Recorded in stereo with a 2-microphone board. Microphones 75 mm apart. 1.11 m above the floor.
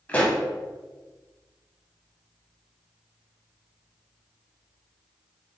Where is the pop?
20° left (ahead or behind), 1.0 m.